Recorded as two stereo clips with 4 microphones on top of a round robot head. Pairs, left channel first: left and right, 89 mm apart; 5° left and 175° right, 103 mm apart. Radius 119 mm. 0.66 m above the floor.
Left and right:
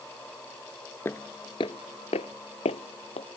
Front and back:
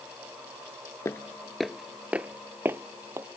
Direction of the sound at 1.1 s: 45° left.